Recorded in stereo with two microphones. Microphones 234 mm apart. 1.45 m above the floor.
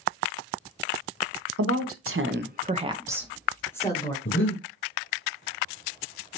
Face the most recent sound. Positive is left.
turn(degrees=55)  # may be behind; listen again after turning